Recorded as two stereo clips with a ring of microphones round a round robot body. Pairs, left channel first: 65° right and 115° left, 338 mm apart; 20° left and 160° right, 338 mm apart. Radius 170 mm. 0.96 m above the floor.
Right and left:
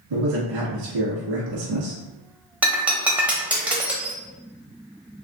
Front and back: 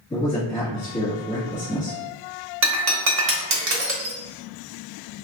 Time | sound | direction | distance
0.1 | a man speaking | 105° left | 1.9 m
2.6 | breaking glass | 165° right | 0.8 m